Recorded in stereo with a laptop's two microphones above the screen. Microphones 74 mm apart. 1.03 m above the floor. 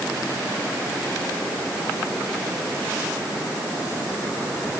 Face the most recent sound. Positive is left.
No sound to turn to.